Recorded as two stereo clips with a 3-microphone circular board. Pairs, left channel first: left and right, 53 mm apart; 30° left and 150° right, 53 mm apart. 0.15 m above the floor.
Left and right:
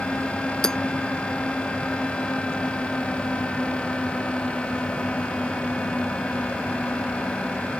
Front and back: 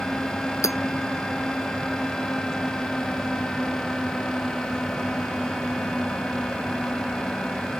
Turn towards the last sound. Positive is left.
turn(degrees=15)